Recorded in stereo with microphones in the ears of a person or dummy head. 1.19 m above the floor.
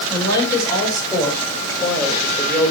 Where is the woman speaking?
20° left (ahead or behind), 5.5 m; by 2.7 s 10° left (ahead or behind), 4.5 m.